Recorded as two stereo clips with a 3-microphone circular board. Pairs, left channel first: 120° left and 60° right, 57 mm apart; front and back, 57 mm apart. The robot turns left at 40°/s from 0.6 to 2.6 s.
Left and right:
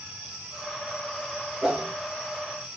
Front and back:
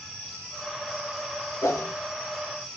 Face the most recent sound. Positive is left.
turn(degrees=-25)